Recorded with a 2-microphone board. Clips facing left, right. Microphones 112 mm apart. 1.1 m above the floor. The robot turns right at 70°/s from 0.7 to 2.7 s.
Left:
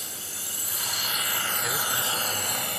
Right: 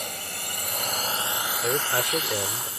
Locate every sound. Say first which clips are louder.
0.0 s a drone: right 7 dB; 65° right; by 2.8 s 75° left
1.6 s a man speaking: right 9 dB; 140° right; by 2.7 s 65° right